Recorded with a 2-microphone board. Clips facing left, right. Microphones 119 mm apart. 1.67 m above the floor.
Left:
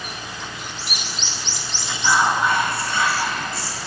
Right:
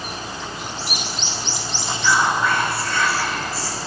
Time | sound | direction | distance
1.8 | whispering | 25° left (ahead or behind) | 3 m